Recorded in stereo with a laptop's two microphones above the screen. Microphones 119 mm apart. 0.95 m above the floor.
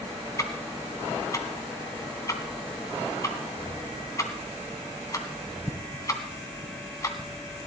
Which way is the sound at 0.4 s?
30° left (ahead or behind).